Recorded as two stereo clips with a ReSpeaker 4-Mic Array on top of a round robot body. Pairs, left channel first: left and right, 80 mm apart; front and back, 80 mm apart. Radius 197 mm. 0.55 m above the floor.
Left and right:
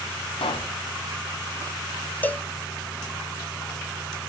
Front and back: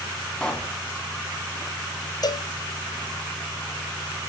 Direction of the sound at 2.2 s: 25° left.